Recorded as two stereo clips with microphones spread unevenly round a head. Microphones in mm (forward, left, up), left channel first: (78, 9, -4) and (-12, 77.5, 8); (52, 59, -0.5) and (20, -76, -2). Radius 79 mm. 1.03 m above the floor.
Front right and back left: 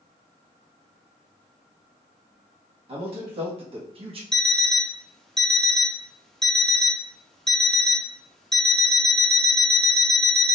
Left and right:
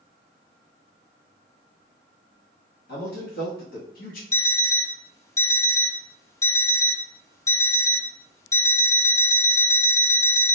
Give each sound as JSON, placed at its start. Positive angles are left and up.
{"t": 2.9, "sound": "a man speaking", "azimuth_deg": 110, "distance_m": 1.7}
{"t": 4.3, "sound": "an alarm clock", "azimuth_deg": 55, "distance_m": 0.5}